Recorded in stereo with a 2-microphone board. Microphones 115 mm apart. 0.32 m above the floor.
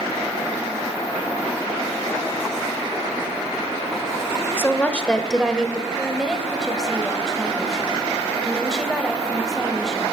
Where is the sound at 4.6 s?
20° left (ahead or behind), 1.0 m; by 5.9 s 10° right (ahead or behind), 1.2 m.